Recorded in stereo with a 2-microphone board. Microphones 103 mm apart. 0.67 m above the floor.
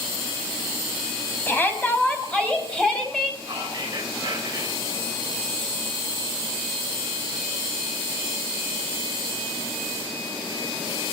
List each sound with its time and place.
1.5 s a shout: 20° left (ahead or behind), 5.5 m; by 3.3 s 5° left (ahead or behind), 4.5 m
3.4 s whispering: 40° right (ahead or behind), 4 m